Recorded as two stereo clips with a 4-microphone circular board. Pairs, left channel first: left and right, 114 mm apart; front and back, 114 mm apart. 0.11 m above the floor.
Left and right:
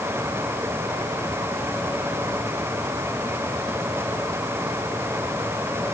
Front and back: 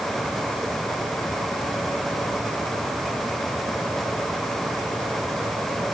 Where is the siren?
No siren in this recording.